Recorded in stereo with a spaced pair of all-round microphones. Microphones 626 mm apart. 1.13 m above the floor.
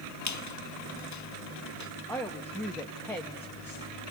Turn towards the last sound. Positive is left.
turn(degrees=5)  # may be behind; listen again after turning